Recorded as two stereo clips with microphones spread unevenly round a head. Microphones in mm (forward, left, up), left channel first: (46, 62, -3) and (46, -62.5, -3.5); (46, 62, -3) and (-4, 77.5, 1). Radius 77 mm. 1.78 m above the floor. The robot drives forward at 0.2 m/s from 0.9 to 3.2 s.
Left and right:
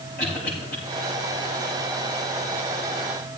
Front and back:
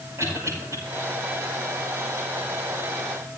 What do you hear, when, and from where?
0.2 s a cough: 130° left, 8 m